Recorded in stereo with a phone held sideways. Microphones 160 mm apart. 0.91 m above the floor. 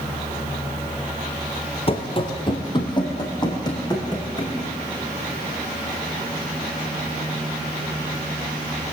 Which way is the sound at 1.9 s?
40° left (ahead or behind).